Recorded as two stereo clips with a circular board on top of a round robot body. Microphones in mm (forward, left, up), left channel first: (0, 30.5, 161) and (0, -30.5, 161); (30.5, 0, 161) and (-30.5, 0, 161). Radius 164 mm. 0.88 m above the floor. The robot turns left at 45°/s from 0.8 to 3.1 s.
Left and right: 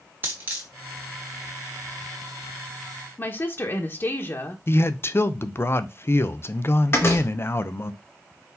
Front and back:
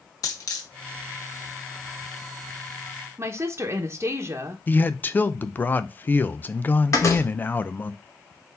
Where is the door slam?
40° left, 2 m.